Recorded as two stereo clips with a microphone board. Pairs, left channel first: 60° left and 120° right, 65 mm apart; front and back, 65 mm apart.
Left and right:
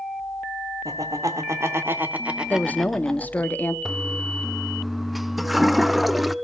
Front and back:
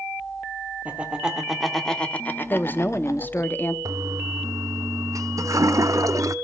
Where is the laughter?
115° right, 2 m; by 3.5 s 10° right, 2 m.